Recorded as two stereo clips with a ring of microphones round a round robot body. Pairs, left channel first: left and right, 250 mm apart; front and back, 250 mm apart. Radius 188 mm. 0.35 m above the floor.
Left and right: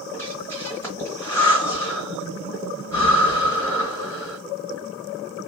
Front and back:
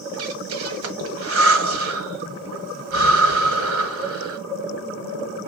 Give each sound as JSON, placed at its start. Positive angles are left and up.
{"t": 0.1, "sound": "breathing", "azimuth_deg": 170, "distance_m": 1.0}